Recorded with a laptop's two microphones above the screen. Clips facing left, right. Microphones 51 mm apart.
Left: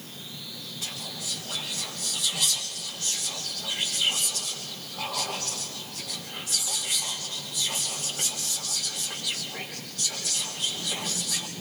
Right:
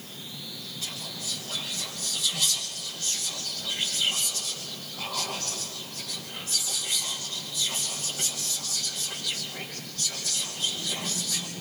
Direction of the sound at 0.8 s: 15° left (ahead or behind).